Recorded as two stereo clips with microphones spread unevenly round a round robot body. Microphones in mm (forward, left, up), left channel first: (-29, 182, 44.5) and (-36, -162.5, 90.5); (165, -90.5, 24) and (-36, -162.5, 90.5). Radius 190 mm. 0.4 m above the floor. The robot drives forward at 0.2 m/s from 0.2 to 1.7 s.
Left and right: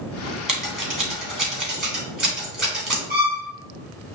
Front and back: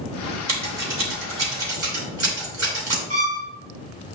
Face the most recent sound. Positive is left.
turn(degrees=-155)